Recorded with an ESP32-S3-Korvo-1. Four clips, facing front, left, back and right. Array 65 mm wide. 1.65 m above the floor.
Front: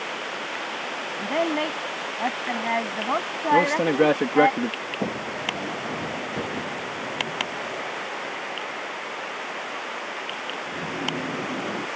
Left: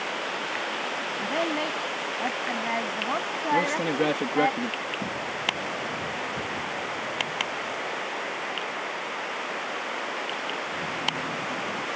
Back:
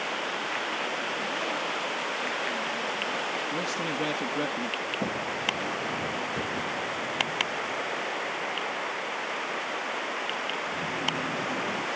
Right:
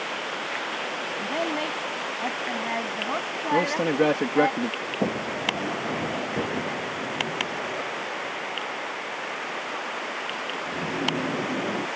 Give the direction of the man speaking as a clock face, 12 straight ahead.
1 o'clock.